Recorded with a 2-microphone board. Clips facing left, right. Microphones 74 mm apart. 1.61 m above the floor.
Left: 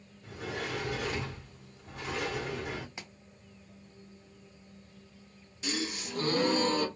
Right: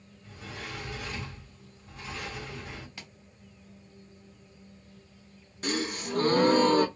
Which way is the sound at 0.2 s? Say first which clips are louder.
Left 5 dB; 70° left (ahead or behind).